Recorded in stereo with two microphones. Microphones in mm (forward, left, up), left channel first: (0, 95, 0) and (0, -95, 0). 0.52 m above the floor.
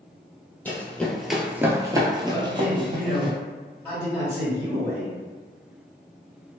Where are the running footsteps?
10° left (ahead or behind), 0.8 m; by 3.3 s 25° right (ahead or behind), 1.1 m.